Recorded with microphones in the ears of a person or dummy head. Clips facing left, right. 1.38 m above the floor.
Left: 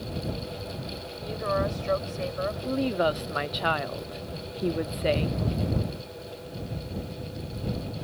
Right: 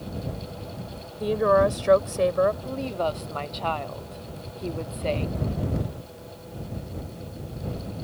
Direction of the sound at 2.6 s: 15° left (ahead or behind).